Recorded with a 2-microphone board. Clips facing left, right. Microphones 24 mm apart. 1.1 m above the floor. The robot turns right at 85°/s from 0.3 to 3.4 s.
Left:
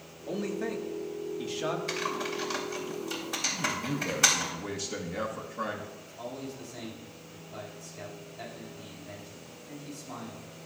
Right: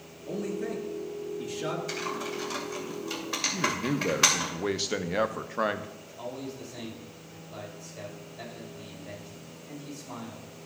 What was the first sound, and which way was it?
A man speaking, 25° left (ahead or behind).